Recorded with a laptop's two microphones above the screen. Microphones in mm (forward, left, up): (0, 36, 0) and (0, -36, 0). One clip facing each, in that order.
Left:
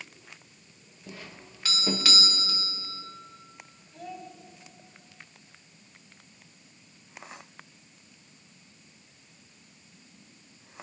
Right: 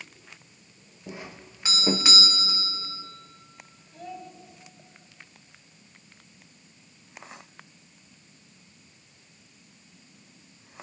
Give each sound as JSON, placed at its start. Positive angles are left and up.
{"t": 1.1, "sound": "a doorbell", "side_deg": -20, "distance_m": 1.1}
{"t": 3.9, "sound": "a child speaking", "side_deg": 0, "distance_m": 4.5}